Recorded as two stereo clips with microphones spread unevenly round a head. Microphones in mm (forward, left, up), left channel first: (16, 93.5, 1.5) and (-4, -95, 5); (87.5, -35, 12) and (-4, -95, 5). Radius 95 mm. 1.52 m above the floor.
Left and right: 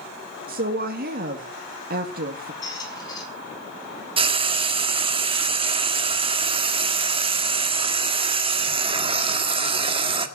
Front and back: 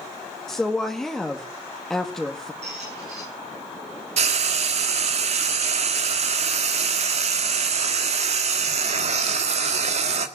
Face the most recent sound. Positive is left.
turn(degrees=-155)